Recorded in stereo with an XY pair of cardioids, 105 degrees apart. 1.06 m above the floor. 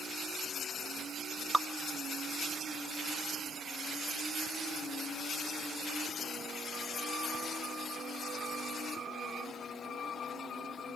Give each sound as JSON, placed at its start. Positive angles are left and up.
{"t": 1.5, "sound": "dripping", "azimuth_deg": -5, "distance_m": 0.7}